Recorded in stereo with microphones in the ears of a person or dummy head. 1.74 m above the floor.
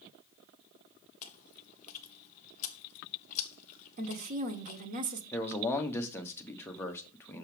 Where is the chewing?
40° left (ahead or behind), 0.8 m.